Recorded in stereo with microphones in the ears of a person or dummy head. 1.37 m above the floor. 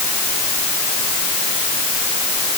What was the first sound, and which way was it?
Only background noise.